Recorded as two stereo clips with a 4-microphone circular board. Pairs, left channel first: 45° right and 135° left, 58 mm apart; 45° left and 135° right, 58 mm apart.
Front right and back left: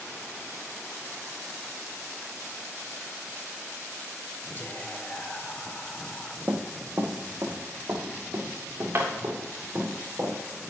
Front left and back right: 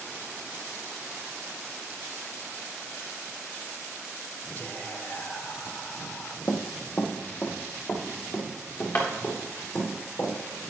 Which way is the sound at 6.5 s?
90° left.